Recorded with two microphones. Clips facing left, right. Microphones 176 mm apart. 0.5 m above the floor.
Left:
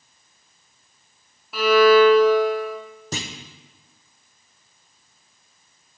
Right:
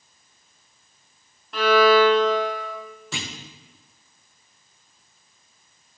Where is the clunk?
40° left (ahead or behind), 0.6 m.